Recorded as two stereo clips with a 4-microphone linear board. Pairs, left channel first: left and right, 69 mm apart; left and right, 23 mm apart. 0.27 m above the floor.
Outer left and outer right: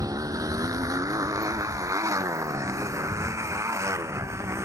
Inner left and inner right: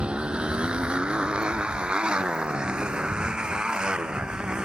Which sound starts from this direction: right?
A motorcycle, at 0.0 s.